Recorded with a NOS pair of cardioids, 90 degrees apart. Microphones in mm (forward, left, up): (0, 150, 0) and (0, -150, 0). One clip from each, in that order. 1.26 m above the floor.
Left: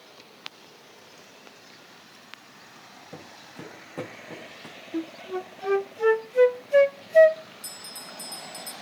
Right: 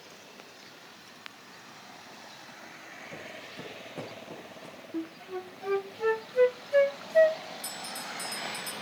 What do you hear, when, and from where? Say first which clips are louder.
3.1 s footsteps: even; 20° left, 7.5 m
4.9 s a flute: left 5 dB; 25° left, 0.7 m
7.6 s a bell: right 2 dB; 5° right, 2.5 m